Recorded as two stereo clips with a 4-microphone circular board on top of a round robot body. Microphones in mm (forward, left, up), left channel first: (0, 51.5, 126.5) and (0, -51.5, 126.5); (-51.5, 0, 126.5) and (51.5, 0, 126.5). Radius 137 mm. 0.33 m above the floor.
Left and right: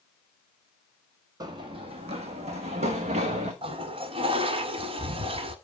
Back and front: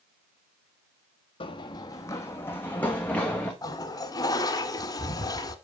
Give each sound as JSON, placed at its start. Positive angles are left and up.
{"t": 1.4, "sound": "running footsteps", "azimuth_deg": -145, "distance_m": 0.8}
{"t": 3.6, "sound": "a toilet flushing", "azimuth_deg": -125, "distance_m": 0.7}